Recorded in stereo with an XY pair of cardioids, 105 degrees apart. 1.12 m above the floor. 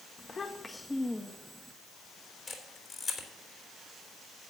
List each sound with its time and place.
0.2 s a child speaking: 40° left, 1.0 m; by 1.7 s 5° right, 1.5 m
2.5 s a camera shutter: 35° left, 3.5 m